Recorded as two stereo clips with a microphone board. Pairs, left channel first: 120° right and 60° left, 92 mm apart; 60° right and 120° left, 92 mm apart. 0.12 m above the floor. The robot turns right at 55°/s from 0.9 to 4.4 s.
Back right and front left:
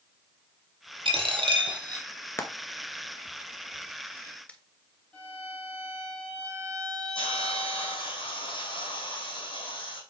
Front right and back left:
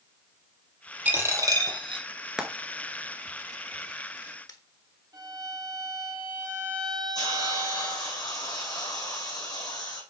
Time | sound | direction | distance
1.1 | a dropped coin | 50° left | 1.4 m
2.4 | frying | 160° right | 1.0 m
5.1 | a violin | 165° left | 1.5 m
7.2 | a hiss | 100° right | 3 m